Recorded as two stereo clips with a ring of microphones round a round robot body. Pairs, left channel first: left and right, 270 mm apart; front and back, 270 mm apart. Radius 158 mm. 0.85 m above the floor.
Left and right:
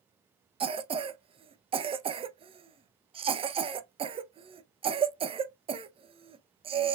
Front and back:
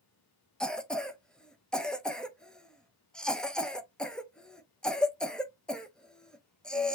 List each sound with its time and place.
0.6 s a cough: 80° right, 0.6 m